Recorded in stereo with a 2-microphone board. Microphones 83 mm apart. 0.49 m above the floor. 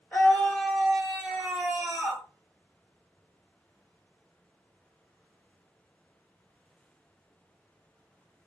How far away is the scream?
About 1.6 m.